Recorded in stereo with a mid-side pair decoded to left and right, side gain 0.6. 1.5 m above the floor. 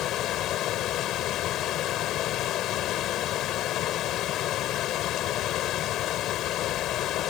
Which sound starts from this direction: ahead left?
Running water, at 0.0 s.